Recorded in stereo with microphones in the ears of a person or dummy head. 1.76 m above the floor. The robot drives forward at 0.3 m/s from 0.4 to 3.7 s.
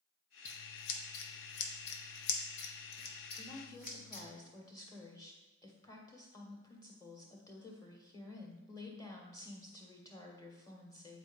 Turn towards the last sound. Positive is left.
turn(degrees=20)  # may be behind; listen again after turning